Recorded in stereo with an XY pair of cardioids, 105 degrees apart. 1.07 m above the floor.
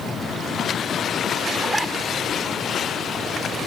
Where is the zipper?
15° right.